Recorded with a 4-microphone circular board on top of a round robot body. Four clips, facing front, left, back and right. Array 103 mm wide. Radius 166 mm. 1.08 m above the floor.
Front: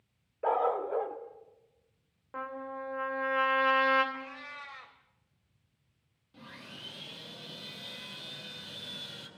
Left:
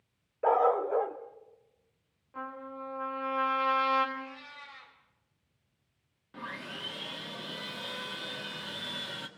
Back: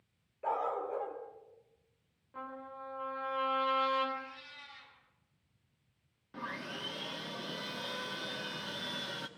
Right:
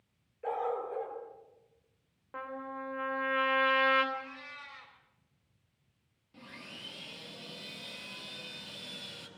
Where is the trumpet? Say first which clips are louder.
Even, front 6 dB; 25° right, 4 m.